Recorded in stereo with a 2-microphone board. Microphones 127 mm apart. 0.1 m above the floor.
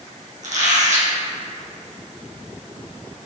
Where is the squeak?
65° right (ahead or behind), 2 m.